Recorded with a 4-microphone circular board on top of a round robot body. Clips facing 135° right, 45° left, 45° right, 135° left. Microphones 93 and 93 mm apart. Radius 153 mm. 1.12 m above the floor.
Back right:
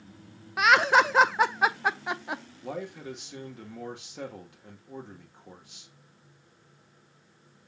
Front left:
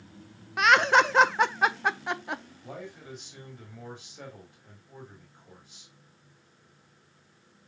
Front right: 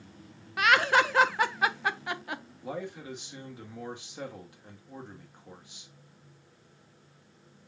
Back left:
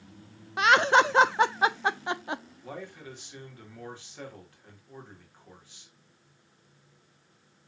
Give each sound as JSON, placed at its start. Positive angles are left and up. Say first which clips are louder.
{"t": 0.6, "sound": "laughter", "louder": "even, back left 3 dB", "azimuth_deg": 145, "distance_m": 0.5}
{"t": 2.6, "sound": "a man speaking", "louder": "back right 6 dB, front right 4 dB", "azimuth_deg": -115, "distance_m": 1.8}